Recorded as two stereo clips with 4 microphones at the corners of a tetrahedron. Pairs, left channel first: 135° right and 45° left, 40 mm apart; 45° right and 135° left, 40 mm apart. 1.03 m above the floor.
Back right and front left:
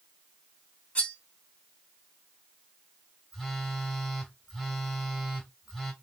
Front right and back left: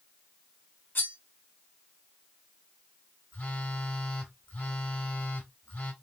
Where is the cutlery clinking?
85° right, 1.2 m.